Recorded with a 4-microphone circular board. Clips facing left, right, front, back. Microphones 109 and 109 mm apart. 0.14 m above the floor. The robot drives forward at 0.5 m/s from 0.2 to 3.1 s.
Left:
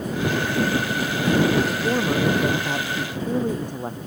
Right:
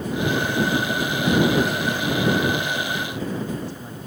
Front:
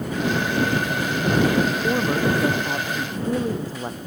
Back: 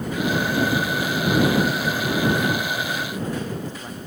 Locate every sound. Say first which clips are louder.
1.7 s a man speaking: left 2 dB, front 2 dB; 50° left; by 4.0 s 55° left